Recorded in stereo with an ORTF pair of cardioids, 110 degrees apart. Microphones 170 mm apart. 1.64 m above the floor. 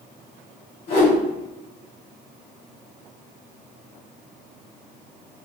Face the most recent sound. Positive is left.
turn(degrees=65)